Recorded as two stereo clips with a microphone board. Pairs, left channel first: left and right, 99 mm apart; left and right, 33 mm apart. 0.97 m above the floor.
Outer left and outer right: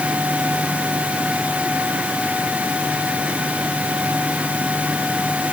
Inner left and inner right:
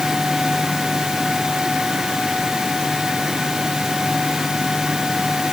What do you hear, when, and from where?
Only background noise.